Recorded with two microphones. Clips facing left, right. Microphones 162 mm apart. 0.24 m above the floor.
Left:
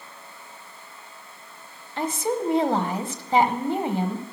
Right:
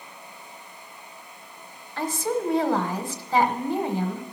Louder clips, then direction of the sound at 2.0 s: Left 1 dB; 20° left (ahead or behind).